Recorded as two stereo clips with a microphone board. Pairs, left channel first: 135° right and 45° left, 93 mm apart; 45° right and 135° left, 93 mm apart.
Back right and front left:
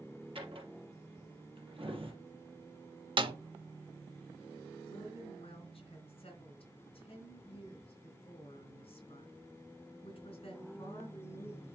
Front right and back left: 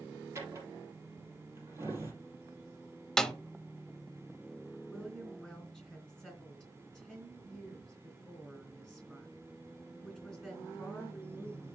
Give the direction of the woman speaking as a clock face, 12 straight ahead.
4 o'clock.